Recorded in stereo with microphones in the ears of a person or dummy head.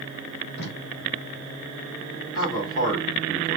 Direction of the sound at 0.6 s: 25° left (ahead or behind).